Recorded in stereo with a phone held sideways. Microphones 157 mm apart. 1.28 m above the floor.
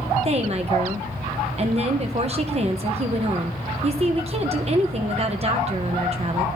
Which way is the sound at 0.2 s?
40° right (ahead or behind).